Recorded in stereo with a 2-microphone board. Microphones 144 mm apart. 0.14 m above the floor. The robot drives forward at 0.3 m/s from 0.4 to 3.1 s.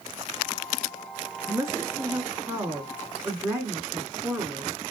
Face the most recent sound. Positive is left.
turn(degrees=-20)  # may be behind; listen again after turning